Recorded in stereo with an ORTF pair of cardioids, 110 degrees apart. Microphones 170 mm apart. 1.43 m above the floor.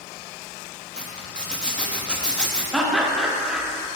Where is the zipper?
5° left, 0.6 m.